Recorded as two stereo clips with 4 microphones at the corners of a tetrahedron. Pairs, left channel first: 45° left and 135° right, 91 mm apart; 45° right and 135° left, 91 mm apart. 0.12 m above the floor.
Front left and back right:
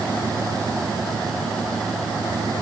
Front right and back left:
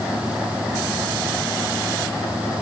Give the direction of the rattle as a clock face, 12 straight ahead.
No rattle in this recording.